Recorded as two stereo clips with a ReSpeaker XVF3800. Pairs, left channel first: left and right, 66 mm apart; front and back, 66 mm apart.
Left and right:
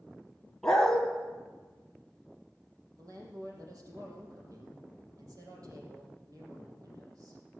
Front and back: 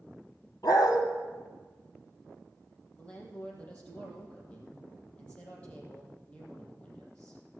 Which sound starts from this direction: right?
A woman speaking, at 3.0 s.